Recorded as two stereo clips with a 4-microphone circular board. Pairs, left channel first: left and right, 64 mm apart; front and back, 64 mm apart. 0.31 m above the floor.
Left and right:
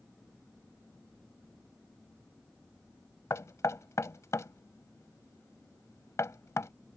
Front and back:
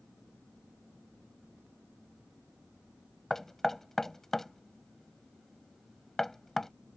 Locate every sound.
3.3 s knocking: 80° left